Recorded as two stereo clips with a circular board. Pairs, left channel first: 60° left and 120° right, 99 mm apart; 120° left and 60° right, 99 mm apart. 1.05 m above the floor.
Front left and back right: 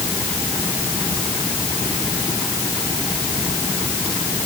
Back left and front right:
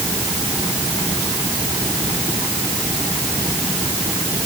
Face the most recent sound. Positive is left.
No sound to turn to.